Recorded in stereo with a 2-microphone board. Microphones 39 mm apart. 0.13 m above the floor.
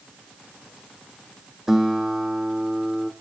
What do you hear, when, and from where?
1.7 s a guitar: 10° right (ahead or behind), 1.3 m